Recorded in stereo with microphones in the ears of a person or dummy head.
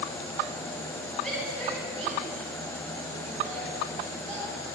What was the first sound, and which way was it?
A shout, 5° left (ahead or behind).